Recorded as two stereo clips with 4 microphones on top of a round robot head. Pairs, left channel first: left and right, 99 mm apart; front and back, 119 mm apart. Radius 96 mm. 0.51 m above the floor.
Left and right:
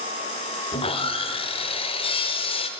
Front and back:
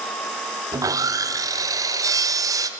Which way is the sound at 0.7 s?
120° left.